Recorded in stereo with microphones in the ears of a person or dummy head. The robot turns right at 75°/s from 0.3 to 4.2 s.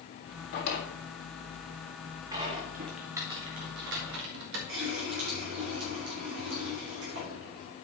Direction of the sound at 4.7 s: 70° right (ahead or behind).